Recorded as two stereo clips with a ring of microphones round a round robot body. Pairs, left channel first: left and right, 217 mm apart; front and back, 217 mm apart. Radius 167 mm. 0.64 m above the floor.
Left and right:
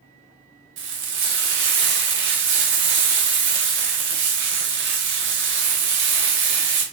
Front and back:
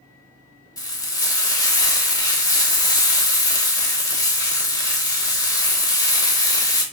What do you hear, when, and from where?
0.8 s frying: 70° right, 0.6 m